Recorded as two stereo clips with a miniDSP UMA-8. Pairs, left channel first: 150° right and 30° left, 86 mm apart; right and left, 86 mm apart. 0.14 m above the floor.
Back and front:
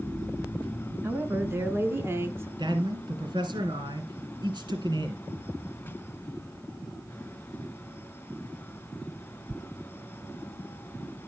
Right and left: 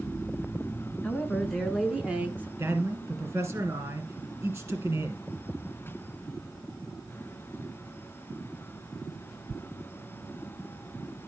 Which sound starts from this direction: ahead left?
A man speaking, at 2.6 s.